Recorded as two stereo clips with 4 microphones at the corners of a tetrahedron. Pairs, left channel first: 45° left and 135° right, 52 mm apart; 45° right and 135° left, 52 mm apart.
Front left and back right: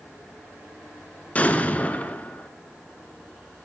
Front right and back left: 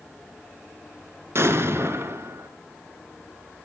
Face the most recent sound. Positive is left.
turn(degrees=105)